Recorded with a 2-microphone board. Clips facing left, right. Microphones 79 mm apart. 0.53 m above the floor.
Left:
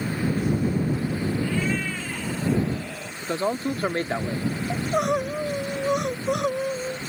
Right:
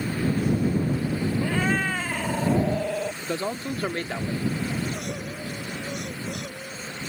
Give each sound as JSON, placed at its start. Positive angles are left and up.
{"t": 1.4, "sound": "a cat meowing", "side_deg": -60}
{"t": 3.2, "sound": "a man speaking", "side_deg": 30}
{"t": 4.7, "sound": "crying", "side_deg": 80}